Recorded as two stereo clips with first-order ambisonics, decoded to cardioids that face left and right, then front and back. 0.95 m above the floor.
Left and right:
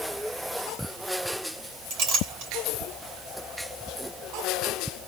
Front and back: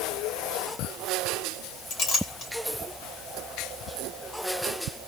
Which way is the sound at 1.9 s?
50° right.